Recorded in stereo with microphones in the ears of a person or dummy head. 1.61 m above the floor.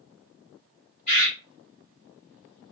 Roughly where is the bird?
Left.